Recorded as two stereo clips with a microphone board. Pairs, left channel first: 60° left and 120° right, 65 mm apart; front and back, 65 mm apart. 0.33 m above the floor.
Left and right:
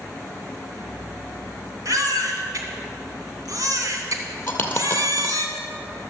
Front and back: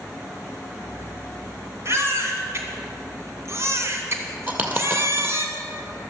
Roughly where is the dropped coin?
Behind left.